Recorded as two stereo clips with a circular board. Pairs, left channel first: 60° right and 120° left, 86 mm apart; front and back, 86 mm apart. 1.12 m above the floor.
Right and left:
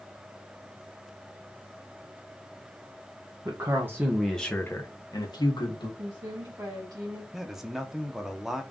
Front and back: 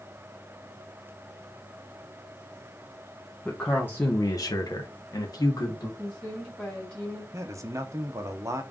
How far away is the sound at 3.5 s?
About 0.9 m.